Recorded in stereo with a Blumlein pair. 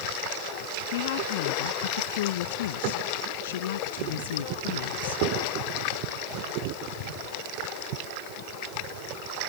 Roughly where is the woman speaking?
Ahead left.